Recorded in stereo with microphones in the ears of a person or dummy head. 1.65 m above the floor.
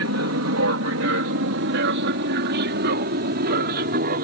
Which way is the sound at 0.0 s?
70° right (ahead or behind).